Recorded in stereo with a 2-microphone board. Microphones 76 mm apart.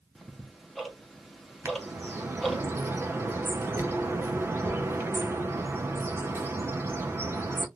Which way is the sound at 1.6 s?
30° right (ahead or behind).